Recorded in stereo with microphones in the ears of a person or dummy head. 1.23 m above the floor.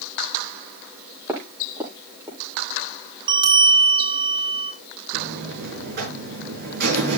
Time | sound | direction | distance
1.3 | footsteps | 15° right (ahead or behind) | 6.5 m
3.3 | a bell | 25° right (ahead or behind) | 2 m
5.1 | a buzzer | 50° right (ahead or behind) | 6 m